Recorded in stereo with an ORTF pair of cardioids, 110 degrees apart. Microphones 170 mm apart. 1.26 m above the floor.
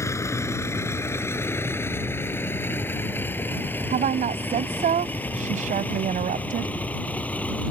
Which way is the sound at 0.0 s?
15° left.